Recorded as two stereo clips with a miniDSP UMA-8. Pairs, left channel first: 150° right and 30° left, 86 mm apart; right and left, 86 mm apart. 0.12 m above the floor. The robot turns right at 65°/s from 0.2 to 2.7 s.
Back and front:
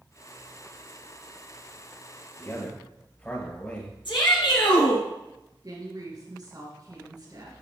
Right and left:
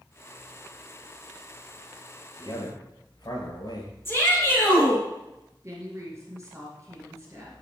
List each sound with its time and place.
2.4 s a man speaking: 95° right, 3 m; by 4.0 s 75° right, 3 m
4.0 s a shout: 150° right, 4.5 m
5.6 s a woman speaking: 45° left, 2.5 m